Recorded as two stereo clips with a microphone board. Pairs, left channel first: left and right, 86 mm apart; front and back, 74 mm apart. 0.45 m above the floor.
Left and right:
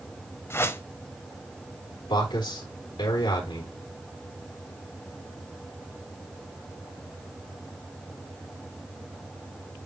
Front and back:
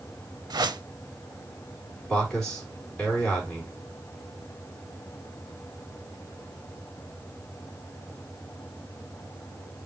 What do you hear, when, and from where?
0.5 s a whoosh: 155° left, 0.6 m
2.1 s a man speaking: 80° left, 4 m